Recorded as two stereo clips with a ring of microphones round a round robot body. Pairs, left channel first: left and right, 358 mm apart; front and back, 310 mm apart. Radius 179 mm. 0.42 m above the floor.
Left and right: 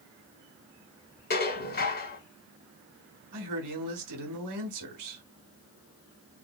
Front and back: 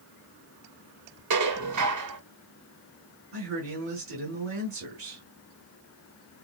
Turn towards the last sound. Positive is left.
turn(degrees=-125)